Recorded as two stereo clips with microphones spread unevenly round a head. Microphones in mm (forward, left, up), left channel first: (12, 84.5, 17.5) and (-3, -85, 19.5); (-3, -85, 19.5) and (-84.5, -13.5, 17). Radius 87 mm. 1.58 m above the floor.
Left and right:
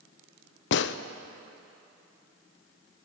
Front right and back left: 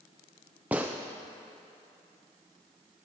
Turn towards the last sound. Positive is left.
turn(degrees=55)